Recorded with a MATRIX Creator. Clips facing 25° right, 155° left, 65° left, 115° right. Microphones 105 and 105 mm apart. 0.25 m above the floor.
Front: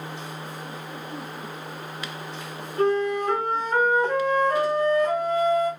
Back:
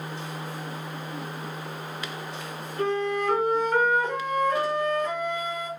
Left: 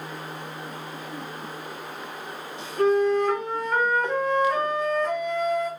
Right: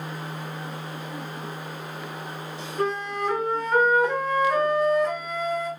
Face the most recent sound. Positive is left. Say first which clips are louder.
# front 4 dB, left 7 dB
turn(degrees=-30)